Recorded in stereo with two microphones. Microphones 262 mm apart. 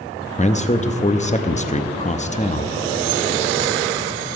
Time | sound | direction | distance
0.4 | a man speaking | 25° left (ahead or behind) | 0.6 m